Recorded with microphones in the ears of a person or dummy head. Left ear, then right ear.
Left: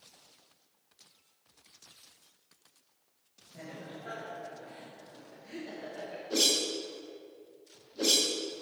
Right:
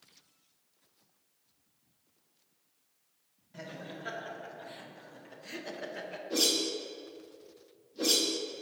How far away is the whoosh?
About 1.0 m.